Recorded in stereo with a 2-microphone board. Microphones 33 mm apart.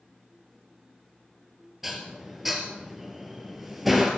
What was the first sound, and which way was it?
Dishes clattering, 5° right (ahead or behind).